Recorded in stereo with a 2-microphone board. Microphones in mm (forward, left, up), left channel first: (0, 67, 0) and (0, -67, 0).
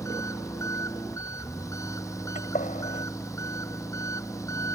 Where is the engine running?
25° left (ahead or behind).